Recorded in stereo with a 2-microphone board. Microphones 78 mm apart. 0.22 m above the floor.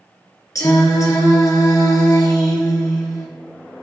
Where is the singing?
45° left (ahead or behind), 3 m.